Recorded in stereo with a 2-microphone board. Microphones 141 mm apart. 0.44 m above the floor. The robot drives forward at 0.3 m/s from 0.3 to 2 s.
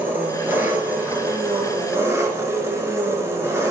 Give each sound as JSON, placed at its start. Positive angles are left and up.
{"t": 0.0, "sound": "an engine running", "side_deg": -15, "distance_m": 2.5}